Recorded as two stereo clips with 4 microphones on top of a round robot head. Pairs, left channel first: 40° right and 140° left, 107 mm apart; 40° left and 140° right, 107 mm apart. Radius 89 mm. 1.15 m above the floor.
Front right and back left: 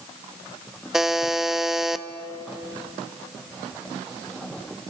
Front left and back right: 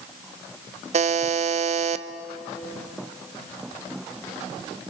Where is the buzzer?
135° right, 0.8 m.